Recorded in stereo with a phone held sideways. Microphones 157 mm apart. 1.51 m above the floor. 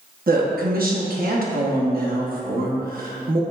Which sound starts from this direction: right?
A woman speaking, at 0.3 s.